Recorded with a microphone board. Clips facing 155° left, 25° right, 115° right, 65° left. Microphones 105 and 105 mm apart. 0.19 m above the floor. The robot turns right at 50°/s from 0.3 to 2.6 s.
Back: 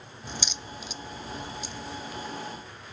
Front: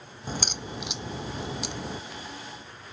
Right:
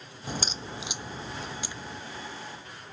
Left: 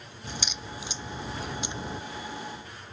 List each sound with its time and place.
0.3 s a crack: 70° right; by 2.0 s 15° left